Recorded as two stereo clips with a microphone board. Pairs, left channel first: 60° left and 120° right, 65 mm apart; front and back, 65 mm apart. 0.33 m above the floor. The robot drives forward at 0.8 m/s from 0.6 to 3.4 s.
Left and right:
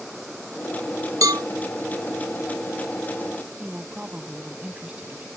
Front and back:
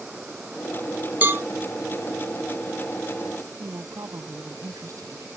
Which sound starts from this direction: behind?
A woman speaking, at 3.6 s.